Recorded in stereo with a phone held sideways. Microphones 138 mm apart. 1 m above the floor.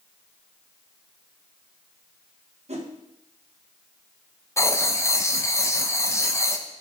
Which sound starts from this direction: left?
Writing, at 4.6 s.